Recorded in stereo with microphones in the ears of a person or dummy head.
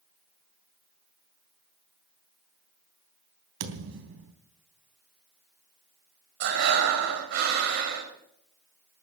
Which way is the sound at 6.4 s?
55° right (ahead or behind).